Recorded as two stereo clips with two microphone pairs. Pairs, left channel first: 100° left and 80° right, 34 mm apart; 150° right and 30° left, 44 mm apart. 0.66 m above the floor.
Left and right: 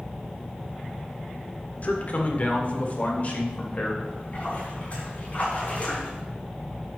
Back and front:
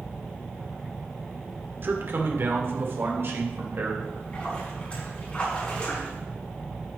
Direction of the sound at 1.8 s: 60° left.